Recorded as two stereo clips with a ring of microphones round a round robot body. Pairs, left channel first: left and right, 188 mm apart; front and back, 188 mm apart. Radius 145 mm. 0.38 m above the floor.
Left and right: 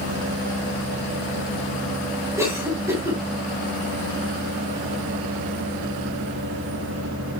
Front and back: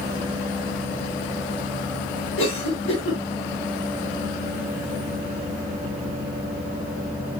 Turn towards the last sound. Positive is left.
turn(degrees=-15)